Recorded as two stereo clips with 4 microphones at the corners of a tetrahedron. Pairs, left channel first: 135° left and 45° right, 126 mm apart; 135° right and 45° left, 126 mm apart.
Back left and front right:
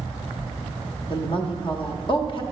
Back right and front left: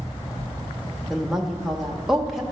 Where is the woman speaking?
130° left, 1.0 m.